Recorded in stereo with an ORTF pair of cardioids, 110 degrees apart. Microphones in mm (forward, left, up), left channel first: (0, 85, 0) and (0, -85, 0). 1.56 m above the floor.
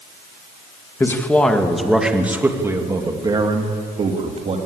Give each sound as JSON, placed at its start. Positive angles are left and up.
{"t": 1.0, "sound": "a man speaking", "azimuth_deg": 15, "distance_m": 2.5}